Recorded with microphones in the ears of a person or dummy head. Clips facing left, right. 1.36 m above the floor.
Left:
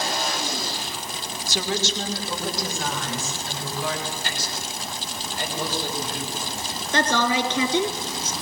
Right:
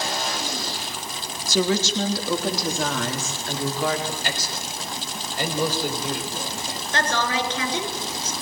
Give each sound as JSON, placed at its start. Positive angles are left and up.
{"t": 1.5, "sound": "a woman speaking", "side_deg": -70, "distance_m": 2.5}
{"t": 4.1, "sound": "a man speaking", "side_deg": -60, "distance_m": 4.5}
{"t": 6.9, "sound": "a woman speaking", "side_deg": 85, "distance_m": 4.0}